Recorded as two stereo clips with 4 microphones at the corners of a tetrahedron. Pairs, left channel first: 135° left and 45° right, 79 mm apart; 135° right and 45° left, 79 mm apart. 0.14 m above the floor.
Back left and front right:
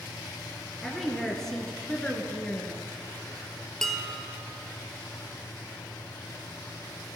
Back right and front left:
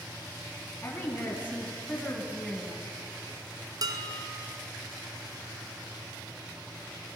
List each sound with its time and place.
0.8 s a woman speaking: 140° right, 1.8 m; by 2.8 s 110° left, 1.7 m
3.8 s dishes clattering: 55° left, 1.5 m